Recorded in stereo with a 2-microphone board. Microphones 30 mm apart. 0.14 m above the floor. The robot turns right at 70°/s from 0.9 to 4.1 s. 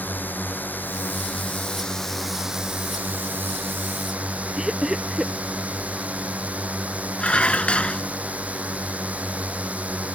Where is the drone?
85° left; by 10.2 s 50° right.